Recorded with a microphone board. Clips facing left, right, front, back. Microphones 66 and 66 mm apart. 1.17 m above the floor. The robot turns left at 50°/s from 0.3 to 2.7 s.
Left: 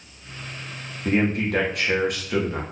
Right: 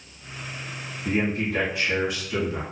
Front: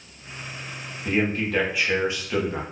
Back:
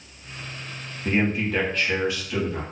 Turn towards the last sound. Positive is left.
turn(degrees=30)